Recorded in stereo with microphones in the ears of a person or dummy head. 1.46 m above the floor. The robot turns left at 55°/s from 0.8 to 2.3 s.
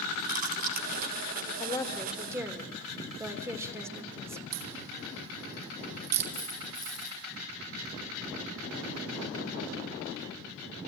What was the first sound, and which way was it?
Chewing, 45° right (ahead or behind).